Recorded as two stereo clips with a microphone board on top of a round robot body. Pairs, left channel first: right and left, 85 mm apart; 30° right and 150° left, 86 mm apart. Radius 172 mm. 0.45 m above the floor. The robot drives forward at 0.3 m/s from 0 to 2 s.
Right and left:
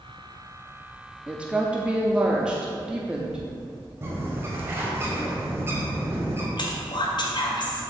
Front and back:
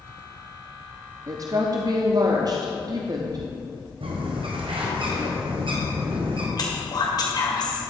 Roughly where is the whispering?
Ahead right.